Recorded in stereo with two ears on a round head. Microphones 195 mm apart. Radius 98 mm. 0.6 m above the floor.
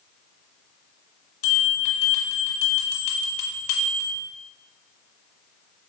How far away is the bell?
About 1.6 m.